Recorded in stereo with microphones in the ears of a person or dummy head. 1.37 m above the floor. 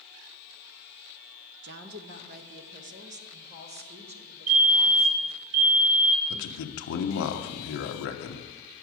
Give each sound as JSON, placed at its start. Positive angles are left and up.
{"t": 1.6, "sound": "a woman speaking", "side_deg": -55, "distance_m": 0.5}
{"t": 4.5, "sound": "a fire alarm", "side_deg": -35, "distance_m": 0.9}
{"t": 6.3, "sound": "a man speaking", "side_deg": 75, "distance_m": 0.9}